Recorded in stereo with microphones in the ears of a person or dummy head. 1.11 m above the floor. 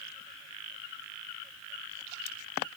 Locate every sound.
Only background noise.